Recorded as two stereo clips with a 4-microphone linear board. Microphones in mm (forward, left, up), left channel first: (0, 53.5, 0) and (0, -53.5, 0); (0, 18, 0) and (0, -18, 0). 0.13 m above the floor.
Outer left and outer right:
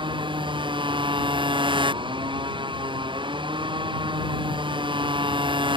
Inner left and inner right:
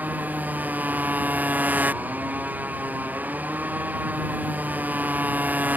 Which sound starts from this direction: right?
A motorcycle, at 0.0 s.